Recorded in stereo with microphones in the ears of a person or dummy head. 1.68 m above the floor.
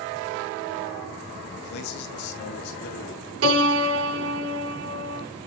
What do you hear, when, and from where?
1.5 s a man speaking: 65° left (ahead or behind), 2 m; by 3.3 s 70° left (ahead or behind), 3.5 m
3.4 s a piano: 75° right (ahead or behind), 5.5 m